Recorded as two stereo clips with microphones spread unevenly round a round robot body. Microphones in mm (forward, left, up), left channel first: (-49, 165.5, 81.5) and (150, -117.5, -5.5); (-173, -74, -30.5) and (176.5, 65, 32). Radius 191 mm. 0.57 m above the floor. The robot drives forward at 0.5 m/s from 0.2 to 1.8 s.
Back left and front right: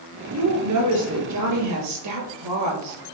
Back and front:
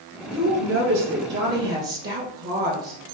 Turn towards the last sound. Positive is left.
turn(degrees=-45)